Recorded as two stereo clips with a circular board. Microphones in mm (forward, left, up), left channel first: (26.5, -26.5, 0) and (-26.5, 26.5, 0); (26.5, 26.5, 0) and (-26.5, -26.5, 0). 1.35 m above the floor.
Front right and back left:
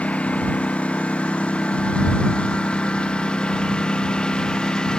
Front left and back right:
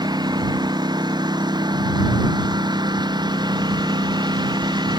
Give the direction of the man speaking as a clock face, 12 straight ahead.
No man speaking in this recording.